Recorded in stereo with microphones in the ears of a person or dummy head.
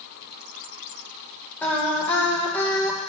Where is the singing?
5° left (ahead or behind), 1.7 m.